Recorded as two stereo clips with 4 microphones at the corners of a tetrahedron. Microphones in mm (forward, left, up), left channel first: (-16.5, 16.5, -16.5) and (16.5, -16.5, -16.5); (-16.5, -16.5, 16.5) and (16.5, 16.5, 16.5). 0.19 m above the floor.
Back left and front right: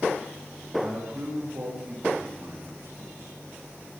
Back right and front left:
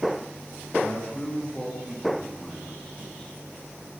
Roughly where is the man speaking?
Ahead right.